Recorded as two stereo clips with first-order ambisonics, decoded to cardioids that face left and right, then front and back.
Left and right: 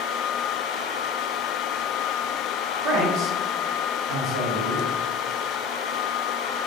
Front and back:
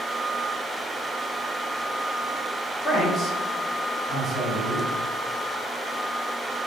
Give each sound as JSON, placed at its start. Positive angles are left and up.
{"t": 2.8, "sound": "a man speaking", "azimuth_deg": -85, "distance_m": 2.0}